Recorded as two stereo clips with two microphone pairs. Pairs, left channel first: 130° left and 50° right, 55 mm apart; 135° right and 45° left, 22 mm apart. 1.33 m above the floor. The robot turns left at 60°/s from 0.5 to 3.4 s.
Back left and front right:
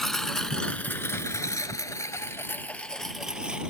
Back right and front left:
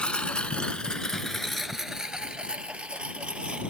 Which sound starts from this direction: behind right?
A lawn mower, at 0.0 s.